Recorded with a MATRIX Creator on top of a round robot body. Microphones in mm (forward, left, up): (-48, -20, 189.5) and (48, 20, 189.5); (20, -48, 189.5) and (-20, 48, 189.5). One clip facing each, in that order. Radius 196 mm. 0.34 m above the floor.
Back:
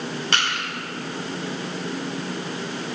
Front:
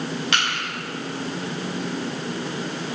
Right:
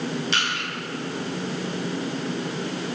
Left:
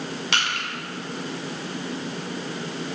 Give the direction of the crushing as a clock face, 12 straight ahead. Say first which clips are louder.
Back 2 dB, even; 7 o'clock.